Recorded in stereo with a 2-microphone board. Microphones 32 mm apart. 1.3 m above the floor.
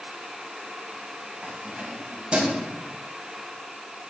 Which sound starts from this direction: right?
Keys jangling, at 1.4 s.